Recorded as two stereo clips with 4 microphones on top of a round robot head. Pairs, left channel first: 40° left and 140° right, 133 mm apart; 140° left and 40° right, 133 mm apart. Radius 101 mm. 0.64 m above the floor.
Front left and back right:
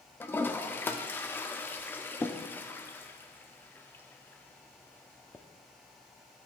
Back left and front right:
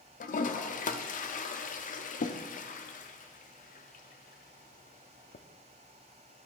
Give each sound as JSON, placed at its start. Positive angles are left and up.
{"t": 0.2, "sound": "a toilet flushing", "azimuth_deg": 115, "distance_m": 0.6}